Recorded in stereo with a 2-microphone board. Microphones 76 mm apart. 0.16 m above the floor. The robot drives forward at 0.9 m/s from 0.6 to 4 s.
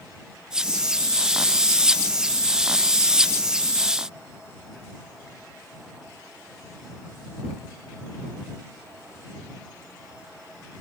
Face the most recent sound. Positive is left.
No sound to turn to.